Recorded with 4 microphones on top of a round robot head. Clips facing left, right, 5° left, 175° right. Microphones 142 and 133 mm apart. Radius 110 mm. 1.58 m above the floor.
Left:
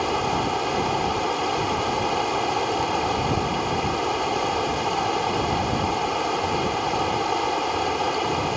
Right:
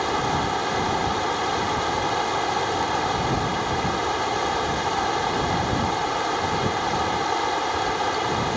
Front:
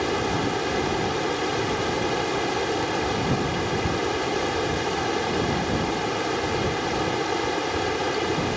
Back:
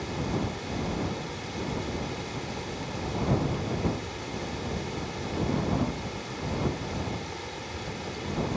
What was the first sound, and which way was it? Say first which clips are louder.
Running water: even, front 7 dB; 10° left.